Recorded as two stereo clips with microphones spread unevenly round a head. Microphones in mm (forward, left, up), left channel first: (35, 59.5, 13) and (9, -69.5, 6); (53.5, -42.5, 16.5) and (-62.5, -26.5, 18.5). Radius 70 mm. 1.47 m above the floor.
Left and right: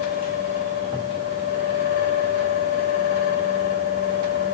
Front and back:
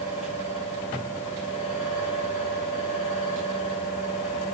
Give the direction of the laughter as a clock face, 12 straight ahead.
I don't hear laughter.